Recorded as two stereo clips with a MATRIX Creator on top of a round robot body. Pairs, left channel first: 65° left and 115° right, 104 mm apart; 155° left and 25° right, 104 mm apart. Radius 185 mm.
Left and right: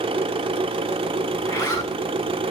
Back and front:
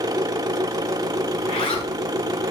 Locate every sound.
0.0 s an engine running: 75° right, 0.8 m
1.4 s a zipper: 135° left, 8.5 m